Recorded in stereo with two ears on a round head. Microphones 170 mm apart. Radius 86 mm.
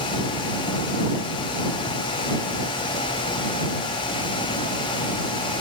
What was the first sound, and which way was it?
Only background noise.